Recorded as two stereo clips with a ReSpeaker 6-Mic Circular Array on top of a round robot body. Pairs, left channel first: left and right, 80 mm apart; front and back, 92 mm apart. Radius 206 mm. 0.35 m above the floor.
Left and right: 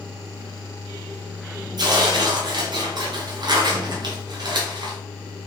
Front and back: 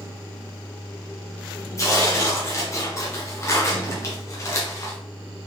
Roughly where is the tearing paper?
Ahead right.